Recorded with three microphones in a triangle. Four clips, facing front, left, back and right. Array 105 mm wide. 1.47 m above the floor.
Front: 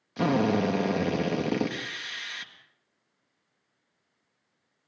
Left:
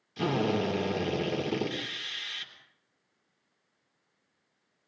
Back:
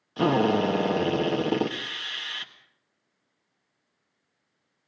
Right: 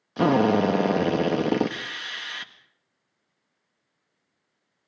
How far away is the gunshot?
I don't hear a gunshot.